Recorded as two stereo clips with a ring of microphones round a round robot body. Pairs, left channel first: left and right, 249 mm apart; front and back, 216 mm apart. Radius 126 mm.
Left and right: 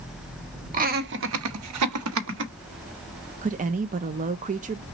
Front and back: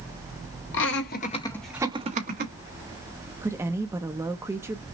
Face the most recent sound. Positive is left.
turn(degrees=-110)